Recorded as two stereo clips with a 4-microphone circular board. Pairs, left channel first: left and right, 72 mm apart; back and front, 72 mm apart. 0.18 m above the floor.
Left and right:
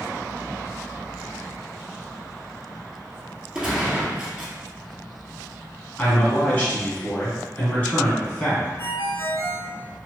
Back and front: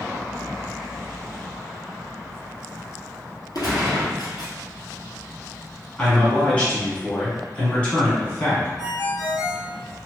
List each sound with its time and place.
3.5 s a gunshot: 170° right, 1.4 m
6.0 s a man speaking: 130° left, 1.2 m
8.8 s a ringtone: 45° left, 1.9 m